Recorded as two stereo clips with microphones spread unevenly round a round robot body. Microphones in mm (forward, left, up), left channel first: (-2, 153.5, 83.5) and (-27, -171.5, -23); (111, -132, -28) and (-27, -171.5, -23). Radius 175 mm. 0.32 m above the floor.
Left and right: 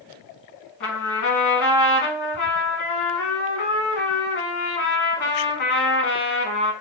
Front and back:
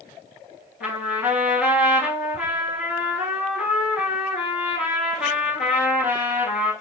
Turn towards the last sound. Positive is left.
turn(degrees=50)